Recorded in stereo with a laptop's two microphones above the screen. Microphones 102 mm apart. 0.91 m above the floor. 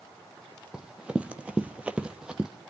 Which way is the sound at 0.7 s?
10° right (ahead or behind).